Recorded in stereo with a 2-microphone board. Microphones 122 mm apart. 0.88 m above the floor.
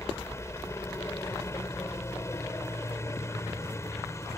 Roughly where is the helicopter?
Left.